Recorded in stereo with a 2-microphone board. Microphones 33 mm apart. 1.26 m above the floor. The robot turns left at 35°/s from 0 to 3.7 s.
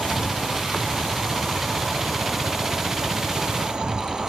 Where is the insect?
80° left, 0.9 m; by 4.3 s 50° right, 0.9 m.